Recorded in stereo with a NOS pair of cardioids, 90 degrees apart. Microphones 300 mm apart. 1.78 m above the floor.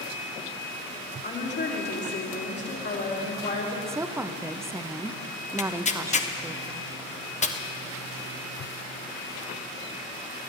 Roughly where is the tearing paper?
Ahead left.